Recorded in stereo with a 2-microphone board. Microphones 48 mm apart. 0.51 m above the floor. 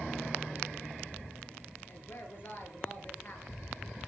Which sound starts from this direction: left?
A woman speaking, at 1.9 s.